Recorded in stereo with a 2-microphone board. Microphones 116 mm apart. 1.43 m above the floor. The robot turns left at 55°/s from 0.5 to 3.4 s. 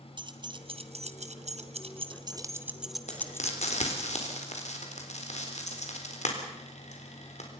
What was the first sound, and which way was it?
Keys jangling, 40° right (ahead or behind).